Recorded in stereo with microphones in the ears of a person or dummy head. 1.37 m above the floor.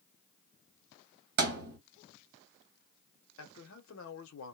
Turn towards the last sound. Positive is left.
turn(degrees=75)  # may be behind; listen again after turning